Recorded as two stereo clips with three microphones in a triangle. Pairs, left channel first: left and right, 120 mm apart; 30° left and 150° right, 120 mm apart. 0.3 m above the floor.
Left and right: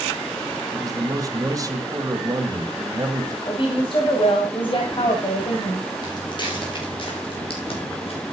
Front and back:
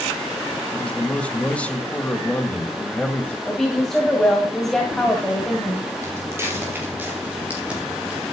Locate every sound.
0.7 s a man speaking: 45° right, 1.8 m
3.5 s a woman speaking: 115° left, 2 m
6.0 s footsteps: 145° left, 5 m; by 8.2 s 125° left, 4 m